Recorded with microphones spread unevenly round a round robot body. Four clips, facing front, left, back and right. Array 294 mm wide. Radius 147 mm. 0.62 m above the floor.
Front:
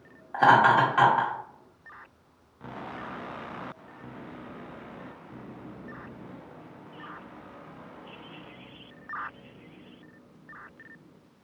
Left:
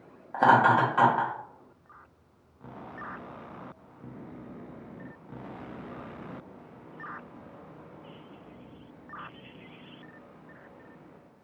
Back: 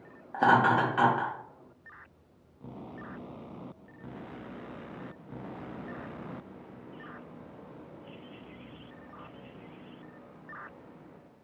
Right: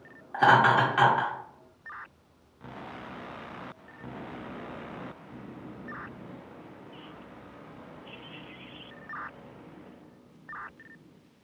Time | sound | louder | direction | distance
0.3 | laughter | even, front 4 dB | 165° left | 1.3 m